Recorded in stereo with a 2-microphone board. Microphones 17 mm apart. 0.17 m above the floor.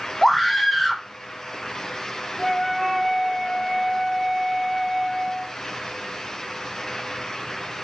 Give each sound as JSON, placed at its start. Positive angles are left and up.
{"t": 0.2, "sound": "a scream", "side_deg": 15, "distance_m": 1.2}
{"t": 2.4, "sound": "a flute", "side_deg": 20, "distance_m": 0.7}